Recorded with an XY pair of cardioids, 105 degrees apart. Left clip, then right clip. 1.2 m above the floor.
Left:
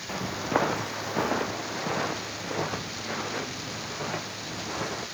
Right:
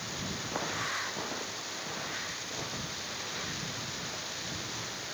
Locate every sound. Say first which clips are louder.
0.1 s footsteps: left 11 dB; 65° left; by 5.1 s 75° left